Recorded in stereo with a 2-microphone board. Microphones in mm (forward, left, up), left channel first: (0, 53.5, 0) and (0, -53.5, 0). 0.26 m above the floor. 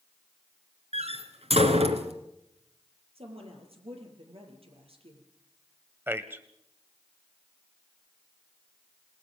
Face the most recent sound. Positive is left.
turn(degrees=-20)  # may be behind; listen again after turning